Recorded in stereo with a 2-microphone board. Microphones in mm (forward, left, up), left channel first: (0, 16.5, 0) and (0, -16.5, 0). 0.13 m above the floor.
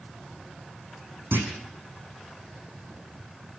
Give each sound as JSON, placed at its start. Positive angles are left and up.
{"t": 1.3, "sound": "a clunk", "side_deg": -80, "distance_m": 5.5}